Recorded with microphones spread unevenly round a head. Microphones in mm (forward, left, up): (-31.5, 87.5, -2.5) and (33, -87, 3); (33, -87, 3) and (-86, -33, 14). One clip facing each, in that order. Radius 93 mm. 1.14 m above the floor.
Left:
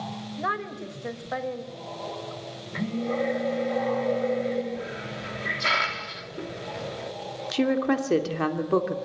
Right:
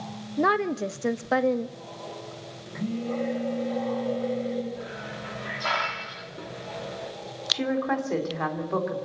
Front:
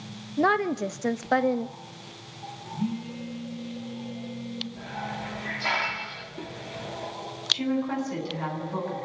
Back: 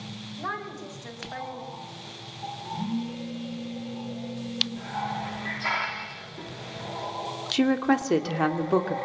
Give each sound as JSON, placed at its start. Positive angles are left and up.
{"t": 0.4, "sound": "a woman speaking", "azimuth_deg": -40, "distance_m": 1.4}
{"t": 2.8, "sound": "a phone buzzing", "azimuth_deg": 60, "distance_m": 9.0}
{"t": 4.8, "sound": "a hiss", "azimuth_deg": 50, "distance_m": 3.0}
{"t": 7.5, "sound": "a woman speaking", "azimuth_deg": 160, "distance_m": 2.5}